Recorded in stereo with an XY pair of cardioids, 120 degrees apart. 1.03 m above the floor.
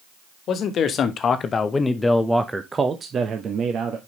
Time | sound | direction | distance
0.5 | a man speaking | 60° left | 1.5 m